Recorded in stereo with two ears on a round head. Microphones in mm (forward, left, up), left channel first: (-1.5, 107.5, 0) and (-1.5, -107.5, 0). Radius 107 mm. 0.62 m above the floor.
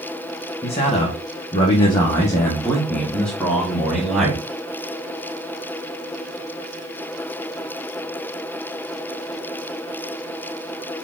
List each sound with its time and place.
0.6 s a man speaking: 25° left (ahead or behind), 1.3 m; by 4.4 s centre (ahead or behind), 2 m